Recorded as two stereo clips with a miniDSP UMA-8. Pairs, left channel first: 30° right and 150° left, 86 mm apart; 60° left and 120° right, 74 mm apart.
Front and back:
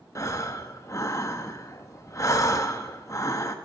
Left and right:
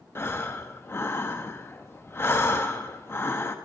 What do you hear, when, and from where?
0.1 s breathing: 10° left, 1.0 m